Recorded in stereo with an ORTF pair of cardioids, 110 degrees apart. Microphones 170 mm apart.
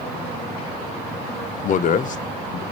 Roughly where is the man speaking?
Ahead left.